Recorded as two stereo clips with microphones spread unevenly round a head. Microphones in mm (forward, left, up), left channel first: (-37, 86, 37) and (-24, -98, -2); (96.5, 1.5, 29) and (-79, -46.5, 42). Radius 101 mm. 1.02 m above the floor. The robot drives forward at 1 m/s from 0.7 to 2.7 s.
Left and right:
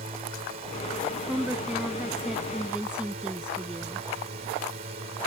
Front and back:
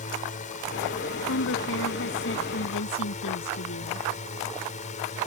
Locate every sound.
0.0 s a drone: 30° right; by 5.3 s 35° right
1.3 s a woman speaking: straight ahead